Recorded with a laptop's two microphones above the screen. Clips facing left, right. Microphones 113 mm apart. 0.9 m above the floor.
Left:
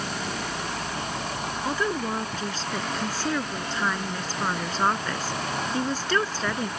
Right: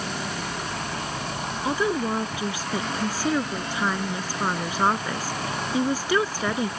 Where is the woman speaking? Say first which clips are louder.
Right 4 dB; 10° right (ahead or behind).